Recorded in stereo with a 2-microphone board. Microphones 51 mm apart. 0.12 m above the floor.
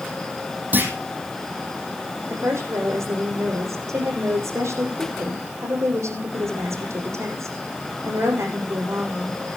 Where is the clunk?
45° right (ahead or behind), 3.5 m.